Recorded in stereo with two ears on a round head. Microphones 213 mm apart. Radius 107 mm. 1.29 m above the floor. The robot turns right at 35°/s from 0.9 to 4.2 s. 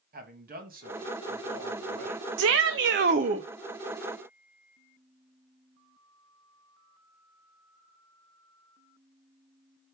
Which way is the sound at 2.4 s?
65° right.